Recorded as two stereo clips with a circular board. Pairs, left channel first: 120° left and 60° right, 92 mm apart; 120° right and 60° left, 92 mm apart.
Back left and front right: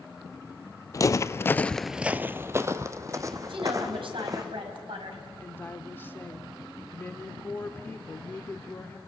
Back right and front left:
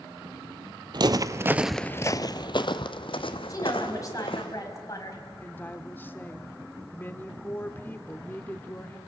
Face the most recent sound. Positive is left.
turn(degrees=180)